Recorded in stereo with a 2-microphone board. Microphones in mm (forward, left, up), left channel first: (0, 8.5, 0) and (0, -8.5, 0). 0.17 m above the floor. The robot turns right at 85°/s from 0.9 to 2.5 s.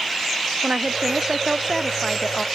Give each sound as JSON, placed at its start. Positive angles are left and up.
{"t": 0.6, "sound": "a woman speaking", "azimuth_deg": -90}